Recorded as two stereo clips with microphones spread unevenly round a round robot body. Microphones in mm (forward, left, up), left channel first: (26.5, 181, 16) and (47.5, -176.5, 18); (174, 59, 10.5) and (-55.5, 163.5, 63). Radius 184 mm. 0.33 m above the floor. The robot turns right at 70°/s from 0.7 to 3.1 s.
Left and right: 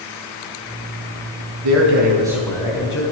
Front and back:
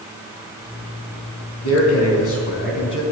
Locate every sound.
1.6 s a man speaking: 50° right, 3 m; by 3.0 s 50° left, 3 m